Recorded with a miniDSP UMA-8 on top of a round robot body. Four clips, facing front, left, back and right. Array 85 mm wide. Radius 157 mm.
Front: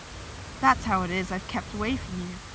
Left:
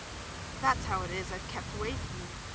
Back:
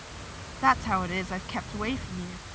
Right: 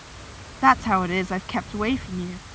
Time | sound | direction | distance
0.6 | a woman speaking | 85° right | ?